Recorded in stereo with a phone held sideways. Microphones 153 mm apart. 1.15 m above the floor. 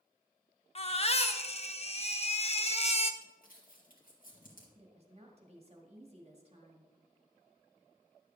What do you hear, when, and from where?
0.8 s a baby crying: 40° left (ahead or behind), 0.6 m
3.2 s crumpling: 65° left (ahead or behind), 2 m
4.8 s a woman speaking: 45° right (ahead or behind), 1.8 m